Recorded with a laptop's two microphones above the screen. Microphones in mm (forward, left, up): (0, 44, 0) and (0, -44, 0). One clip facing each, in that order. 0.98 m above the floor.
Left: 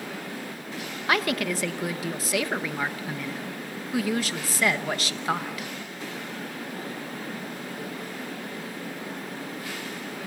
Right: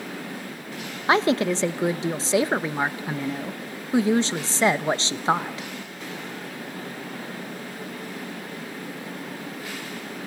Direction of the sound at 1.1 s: 25° right (ahead or behind).